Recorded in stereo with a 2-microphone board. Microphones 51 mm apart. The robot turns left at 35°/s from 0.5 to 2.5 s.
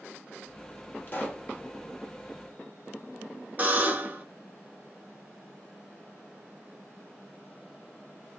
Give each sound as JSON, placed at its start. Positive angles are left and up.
{"t": 1.1, "sound": "a pop", "side_deg": 35, "distance_m": 0.8}
{"t": 3.6, "sound": "a buzzer", "side_deg": -35, "distance_m": 0.8}